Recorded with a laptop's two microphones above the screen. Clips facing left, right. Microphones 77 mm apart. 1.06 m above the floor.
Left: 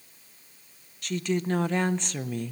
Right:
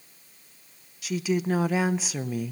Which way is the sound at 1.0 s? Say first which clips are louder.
Right 2 dB; 5° right (ahead or behind).